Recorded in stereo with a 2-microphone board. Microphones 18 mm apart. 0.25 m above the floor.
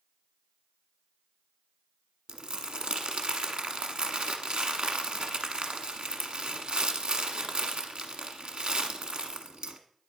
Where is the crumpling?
70° right (ahead or behind), 1.0 m.